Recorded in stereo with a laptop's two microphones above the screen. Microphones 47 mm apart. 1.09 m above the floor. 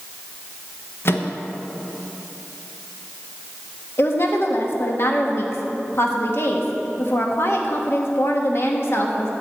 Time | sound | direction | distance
1.1 | a microwave | 55° left (ahead or behind) | 1.1 m
4.0 | a woman speaking | 60° left (ahead or behind) | 1.5 m